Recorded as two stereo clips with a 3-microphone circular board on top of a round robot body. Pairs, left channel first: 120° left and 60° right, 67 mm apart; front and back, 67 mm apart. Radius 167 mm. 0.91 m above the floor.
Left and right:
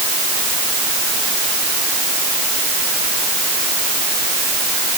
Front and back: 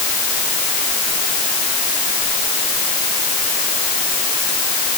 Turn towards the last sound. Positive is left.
No sound to turn to.